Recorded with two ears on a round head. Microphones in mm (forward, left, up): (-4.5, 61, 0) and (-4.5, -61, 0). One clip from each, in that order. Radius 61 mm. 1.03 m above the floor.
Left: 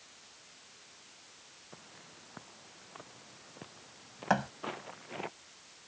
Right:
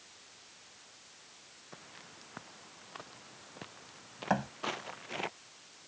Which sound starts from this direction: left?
A thud, at 4.3 s.